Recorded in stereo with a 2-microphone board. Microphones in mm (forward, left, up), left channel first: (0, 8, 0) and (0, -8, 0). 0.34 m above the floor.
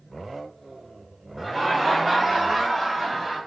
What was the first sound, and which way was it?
Laughter, 20° left (ahead or behind).